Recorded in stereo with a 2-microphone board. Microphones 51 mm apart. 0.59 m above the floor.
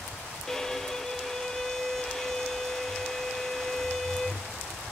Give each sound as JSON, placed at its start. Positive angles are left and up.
{"t": 0.5, "sound": "a violin", "side_deg": 10, "distance_m": 0.9}